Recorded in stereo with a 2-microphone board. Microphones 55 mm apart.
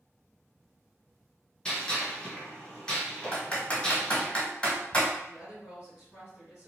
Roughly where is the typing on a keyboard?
Left.